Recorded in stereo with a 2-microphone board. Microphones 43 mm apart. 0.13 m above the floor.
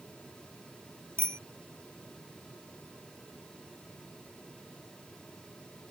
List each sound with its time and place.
1.2 s a bicycle bell: 65° right (ahead or behind)